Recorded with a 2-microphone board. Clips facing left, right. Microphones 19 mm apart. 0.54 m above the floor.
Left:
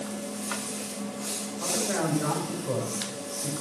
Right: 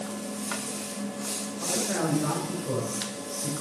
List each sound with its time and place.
1.6 s a man speaking: 10° left (ahead or behind), 2.5 m